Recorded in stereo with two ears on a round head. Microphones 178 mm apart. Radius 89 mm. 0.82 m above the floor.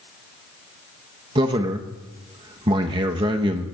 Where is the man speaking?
25° right (ahead or behind), 0.9 m.